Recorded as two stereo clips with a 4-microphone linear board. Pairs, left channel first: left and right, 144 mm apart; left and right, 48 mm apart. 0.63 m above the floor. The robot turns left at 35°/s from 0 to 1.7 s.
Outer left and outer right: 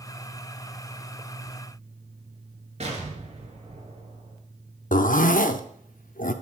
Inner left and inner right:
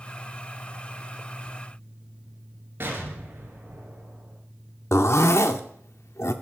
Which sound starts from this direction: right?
An explosion, at 2.8 s.